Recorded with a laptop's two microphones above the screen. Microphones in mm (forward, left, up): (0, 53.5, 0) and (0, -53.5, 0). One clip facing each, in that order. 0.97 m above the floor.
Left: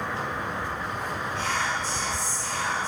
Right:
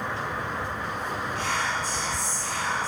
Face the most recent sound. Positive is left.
turn(degrees=25)  # may be behind; listen again after turning